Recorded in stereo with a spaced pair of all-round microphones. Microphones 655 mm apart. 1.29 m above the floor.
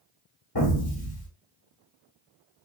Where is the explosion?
35° left (ahead or behind), 1.3 m.